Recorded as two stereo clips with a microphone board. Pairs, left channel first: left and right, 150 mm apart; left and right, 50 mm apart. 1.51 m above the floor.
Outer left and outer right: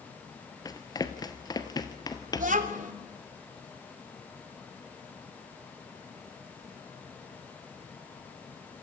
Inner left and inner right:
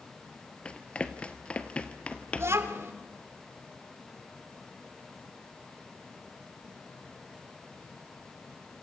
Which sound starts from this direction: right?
A child speaking, at 2.4 s.